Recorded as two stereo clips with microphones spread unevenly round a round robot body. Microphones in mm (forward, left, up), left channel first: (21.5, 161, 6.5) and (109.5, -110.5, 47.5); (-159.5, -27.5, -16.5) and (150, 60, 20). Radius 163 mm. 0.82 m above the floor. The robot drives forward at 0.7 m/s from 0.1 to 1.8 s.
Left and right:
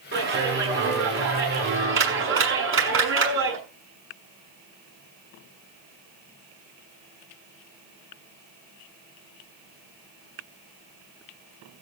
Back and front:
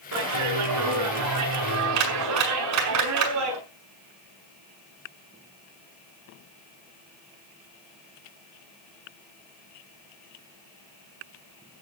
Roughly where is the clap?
Ahead right.